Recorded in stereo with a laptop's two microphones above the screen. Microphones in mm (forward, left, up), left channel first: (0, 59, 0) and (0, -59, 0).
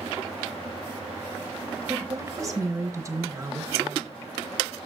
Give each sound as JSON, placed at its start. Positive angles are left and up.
{"t": 1.9, "sound": "a woman speaking", "side_deg": -25, "distance_m": 0.9}